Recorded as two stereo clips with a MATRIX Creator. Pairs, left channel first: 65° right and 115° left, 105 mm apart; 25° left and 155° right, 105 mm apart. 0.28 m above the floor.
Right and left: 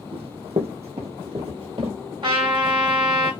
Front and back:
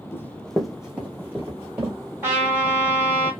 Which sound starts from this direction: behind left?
A trumpet, at 2.2 s.